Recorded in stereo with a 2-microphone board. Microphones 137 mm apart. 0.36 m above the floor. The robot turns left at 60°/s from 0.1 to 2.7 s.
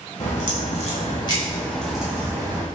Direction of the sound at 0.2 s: 105° left.